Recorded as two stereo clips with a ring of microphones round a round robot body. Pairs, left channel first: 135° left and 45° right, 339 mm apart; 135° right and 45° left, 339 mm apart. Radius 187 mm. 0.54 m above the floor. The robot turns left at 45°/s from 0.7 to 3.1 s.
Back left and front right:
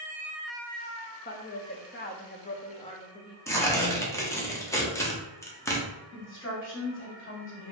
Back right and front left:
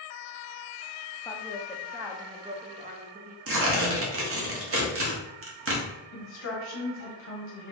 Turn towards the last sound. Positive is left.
turn(degrees=180)